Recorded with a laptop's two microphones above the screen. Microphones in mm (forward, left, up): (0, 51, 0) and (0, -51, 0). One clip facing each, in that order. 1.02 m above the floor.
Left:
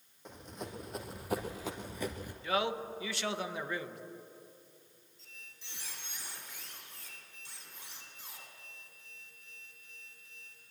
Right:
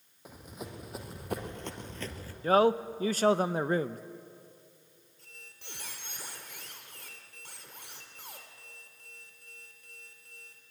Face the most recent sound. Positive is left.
turn(degrees=-80)